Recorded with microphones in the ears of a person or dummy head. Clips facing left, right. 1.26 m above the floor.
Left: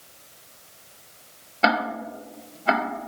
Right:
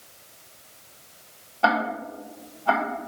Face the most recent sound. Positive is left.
turn(degrees=25)  # may be behind; listen again after turning